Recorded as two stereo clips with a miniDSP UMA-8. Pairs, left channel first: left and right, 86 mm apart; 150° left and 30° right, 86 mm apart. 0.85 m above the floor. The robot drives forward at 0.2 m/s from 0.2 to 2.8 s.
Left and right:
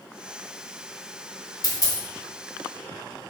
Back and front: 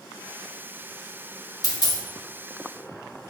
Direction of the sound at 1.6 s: 120° left.